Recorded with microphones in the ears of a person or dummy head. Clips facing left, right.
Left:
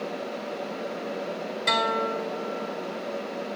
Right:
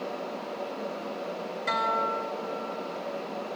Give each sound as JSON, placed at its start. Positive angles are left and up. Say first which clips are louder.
{"t": 1.7, "sound": "a guitar", "louder": "left 4 dB", "side_deg": 55, "distance_m": 3.0}